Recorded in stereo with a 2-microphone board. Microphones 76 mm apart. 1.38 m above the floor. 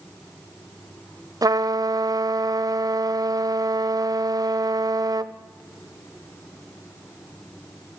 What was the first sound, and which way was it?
A trumpet, 55° right (ahead or behind).